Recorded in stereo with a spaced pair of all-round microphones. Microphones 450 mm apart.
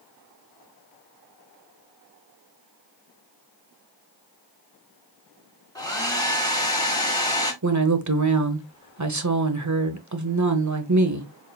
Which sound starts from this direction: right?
A woman speaking, at 7.6 s.